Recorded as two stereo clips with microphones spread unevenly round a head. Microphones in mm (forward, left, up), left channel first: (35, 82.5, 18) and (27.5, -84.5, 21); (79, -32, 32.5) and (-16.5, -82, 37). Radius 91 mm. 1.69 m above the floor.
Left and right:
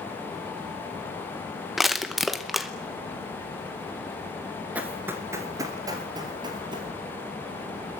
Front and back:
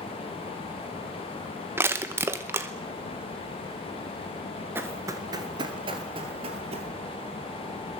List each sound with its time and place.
1.8 s crushing: 175° right, 0.8 m
4.8 s running footsteps: 155° right, 1.7 m